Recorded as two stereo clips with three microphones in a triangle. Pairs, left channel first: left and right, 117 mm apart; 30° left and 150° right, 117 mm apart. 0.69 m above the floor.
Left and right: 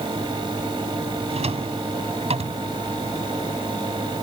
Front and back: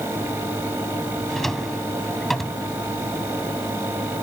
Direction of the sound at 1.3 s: 60° right.